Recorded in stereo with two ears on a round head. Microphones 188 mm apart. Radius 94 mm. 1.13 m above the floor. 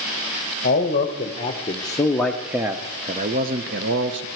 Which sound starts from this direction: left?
A man speaking, at 0.6 s.